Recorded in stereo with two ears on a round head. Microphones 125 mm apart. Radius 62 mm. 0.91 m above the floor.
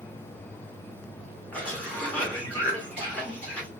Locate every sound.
1.5 s a cough: 10° left (ahead or behind), 2 m